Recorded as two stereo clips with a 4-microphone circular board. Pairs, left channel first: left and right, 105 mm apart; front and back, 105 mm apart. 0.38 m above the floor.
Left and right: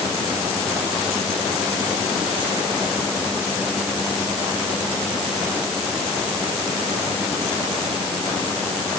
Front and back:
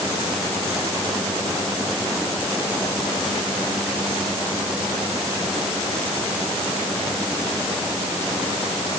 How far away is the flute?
I don't hear a flute.